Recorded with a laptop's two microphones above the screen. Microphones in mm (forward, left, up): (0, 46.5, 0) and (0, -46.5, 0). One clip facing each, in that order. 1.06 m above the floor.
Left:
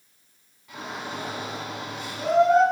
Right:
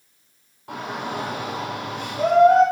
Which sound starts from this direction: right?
A shout, at 0.7 s.